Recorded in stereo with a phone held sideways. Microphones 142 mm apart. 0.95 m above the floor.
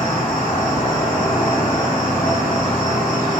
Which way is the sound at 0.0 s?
70° left (ahead or behind).